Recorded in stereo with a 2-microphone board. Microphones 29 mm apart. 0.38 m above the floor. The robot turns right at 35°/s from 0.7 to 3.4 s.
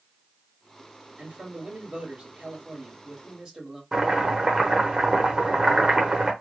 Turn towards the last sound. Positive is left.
turn(degrees=-25)  # may be behind; listen again after turning